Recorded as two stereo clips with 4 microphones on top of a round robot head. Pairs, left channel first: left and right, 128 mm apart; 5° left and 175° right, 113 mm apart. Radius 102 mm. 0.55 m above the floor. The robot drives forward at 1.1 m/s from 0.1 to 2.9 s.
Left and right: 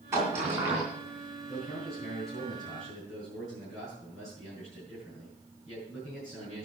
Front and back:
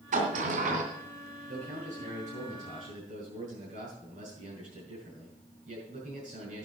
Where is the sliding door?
165° right, 2.5 m; by 0.8 s 170° right, 3 m.